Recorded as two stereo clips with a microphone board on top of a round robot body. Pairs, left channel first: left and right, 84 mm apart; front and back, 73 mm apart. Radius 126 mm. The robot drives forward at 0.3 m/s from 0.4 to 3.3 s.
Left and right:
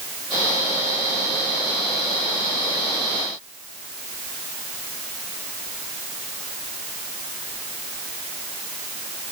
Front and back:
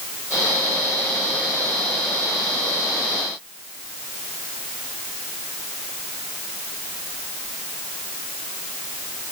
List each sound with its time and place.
Only background noise.